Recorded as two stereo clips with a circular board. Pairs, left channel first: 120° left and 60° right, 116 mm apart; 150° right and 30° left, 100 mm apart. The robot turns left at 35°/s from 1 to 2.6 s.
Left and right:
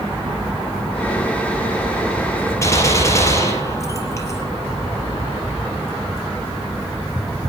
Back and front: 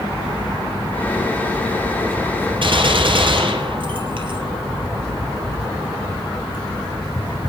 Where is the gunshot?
60° left, 4 m.